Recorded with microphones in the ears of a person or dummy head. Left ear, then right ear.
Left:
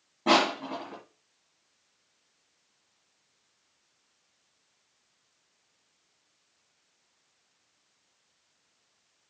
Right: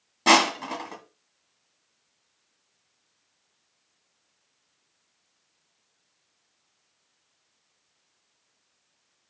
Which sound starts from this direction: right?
Crushing, at 0.3 s.